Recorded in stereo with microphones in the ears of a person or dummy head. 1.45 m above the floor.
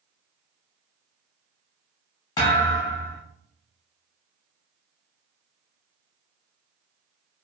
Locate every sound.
2.4 s a thud: 20° left (ahead or behind), 0.8 m